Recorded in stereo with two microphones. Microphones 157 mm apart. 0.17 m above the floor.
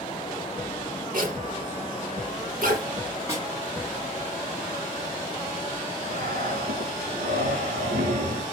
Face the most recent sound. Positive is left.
turn(degrees=-85)